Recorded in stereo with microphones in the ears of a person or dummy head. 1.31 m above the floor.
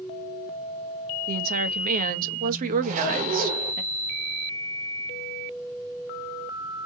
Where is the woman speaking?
45° right (ahead or behind), 0.7 m.